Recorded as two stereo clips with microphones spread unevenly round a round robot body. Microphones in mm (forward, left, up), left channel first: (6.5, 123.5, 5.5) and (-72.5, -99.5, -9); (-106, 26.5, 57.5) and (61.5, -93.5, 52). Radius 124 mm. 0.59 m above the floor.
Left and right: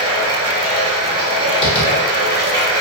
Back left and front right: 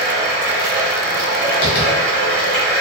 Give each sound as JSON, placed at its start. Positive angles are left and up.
{"t": 0.0, "sound": "running water", "azimuth_deg": -75, "distance_m": 1.6}
{"t": 1.6, "sound": "tapping", "azimuth_deg": 140, "distance_m": 1.0}